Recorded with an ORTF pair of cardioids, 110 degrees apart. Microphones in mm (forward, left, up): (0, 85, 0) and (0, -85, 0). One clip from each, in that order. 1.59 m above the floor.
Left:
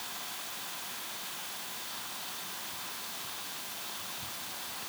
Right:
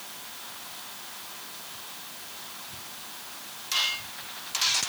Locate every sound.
Only background noise.